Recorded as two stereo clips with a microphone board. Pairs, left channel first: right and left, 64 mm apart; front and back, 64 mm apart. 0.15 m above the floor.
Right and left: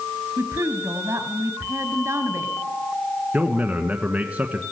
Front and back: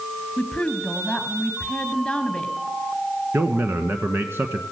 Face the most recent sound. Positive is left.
turn(degrees=150)